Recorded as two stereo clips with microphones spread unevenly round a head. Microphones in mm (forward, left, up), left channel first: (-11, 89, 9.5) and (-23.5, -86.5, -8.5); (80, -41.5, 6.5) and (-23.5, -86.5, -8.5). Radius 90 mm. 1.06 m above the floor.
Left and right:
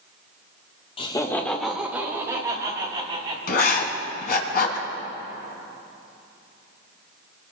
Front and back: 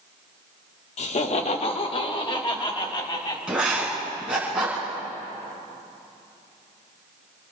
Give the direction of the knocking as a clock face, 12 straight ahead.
No knocking in this recording.